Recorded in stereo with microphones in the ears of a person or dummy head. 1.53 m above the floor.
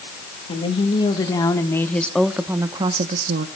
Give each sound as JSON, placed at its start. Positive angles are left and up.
{"t": 0.5, "sound": "a woman speaking", "side_deg": 35, "distance_m": 2.5}